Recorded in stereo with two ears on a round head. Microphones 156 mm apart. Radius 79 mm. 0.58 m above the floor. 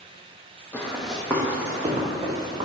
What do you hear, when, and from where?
0.7 s running footsteps: 10° left (ahead or behind), 0.8 m; by 2.6 s 25° right (ahead or behind), 1.6 m